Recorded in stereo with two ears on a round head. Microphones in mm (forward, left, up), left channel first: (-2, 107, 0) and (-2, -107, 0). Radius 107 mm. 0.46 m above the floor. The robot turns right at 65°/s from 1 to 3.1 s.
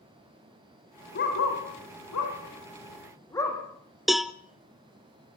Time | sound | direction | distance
1.1 | a dog barking | 40° left (ahead or behind) | 5 m
4.1 | a cowbell | centre (ahead or behind) | 0.6 m